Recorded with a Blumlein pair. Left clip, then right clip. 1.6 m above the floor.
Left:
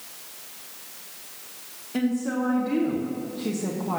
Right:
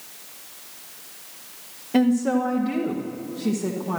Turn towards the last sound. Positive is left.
turn(degrees=5)